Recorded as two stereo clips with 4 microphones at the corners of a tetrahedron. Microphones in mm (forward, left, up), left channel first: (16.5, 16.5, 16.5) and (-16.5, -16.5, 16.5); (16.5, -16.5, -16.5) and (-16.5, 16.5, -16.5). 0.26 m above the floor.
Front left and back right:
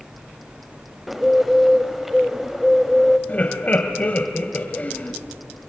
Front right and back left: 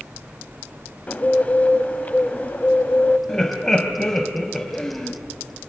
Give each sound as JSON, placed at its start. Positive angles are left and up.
{"t": 1.1, "sound": "a bird", "azimuth_deg": -50, "distance_m": 0.7}
{"t": 3.3, "sound": "laughter", "azimuth_deg": 25, "distance_m": 1.4}